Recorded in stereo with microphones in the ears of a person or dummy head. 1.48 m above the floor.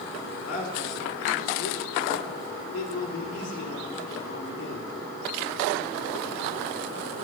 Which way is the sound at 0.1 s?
80° left.